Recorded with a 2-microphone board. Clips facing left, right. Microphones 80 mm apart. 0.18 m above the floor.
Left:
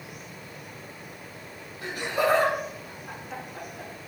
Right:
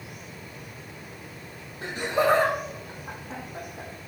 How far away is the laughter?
About 5 m.